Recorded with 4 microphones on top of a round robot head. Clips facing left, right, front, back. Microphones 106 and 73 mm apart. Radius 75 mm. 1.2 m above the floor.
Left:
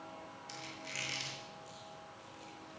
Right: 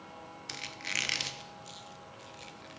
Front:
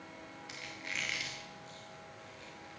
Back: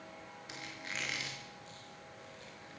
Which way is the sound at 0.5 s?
110° right.